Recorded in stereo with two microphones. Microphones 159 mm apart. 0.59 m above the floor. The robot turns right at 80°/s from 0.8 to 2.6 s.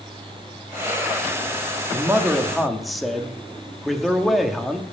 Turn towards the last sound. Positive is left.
turn(degrees=0)  # may be behind; listen again after turning